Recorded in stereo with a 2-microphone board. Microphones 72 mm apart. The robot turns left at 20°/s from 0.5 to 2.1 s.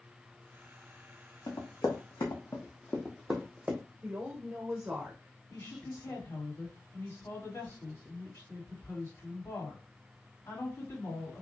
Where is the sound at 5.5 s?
50° left (ahead or behind), 2 m.